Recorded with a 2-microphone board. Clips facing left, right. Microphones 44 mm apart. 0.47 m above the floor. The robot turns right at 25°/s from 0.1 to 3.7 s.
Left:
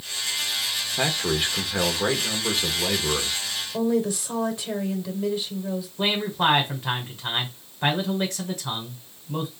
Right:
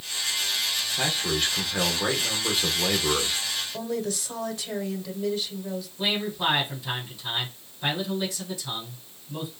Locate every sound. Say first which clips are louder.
1.0 s a man speaking: left 3 dB; 145° left, 1.1 m; by 3.4 s 155° right, 1.1 m
3.7 s a woman speaking: left 10 dB; 25° left (ahead or behind), 1.6 m
6.0 s a man speaking: left 3 dB; 50° left (ahead or behind), 1.9 m